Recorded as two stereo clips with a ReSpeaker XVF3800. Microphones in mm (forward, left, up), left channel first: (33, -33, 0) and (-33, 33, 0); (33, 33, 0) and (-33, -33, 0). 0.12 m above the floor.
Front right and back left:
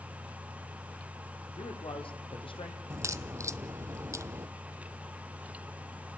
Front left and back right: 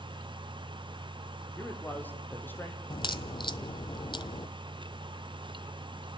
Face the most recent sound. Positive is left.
turn(degrees=80)